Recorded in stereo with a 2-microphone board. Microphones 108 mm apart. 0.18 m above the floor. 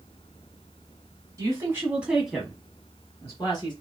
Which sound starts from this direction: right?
A woman speaking, at 1.4 s.